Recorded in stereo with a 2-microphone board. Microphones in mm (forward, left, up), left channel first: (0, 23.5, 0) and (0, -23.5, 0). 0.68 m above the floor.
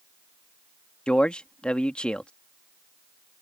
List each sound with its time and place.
1.1 s a man speaking: 20° left (ahead or behind)